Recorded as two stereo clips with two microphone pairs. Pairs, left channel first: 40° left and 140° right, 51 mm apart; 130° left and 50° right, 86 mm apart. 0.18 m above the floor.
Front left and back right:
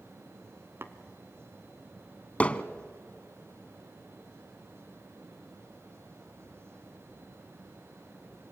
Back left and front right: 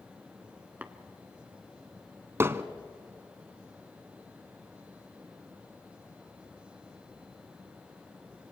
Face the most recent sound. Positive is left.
turn(degrees=-10)